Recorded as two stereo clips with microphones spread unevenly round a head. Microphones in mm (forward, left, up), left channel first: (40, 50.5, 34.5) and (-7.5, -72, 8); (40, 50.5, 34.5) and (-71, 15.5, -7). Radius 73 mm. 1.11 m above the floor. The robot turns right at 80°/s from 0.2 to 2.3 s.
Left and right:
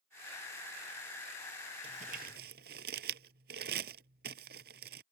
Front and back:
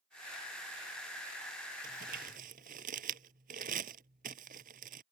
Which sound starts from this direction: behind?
Crumpling, at 1.8 s.